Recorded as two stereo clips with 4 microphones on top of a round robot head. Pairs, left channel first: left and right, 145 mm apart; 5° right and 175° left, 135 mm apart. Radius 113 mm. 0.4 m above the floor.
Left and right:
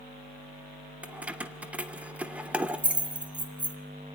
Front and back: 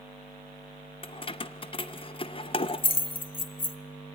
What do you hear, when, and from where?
1.0 s keys jangling: 15° right, 0.6 m